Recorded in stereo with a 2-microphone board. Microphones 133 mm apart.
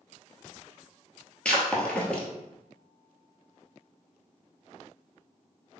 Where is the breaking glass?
10° left (ahead or behind), 1.2 m.